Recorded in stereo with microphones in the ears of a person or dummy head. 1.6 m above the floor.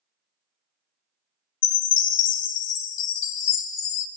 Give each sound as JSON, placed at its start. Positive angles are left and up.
{"t": 1.6, "sound": "a chime", "side_deg": 55, "distance_m": 0.7}